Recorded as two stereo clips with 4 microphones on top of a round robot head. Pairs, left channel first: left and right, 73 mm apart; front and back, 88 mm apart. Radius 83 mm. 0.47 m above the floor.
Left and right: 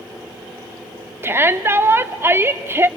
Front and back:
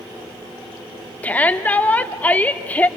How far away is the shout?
About 1.2 m.